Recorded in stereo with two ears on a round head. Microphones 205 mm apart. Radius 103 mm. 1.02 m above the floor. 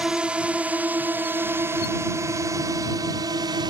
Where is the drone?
5° right (ahead or behind); by 3.7 s 20° right (ahead or behind).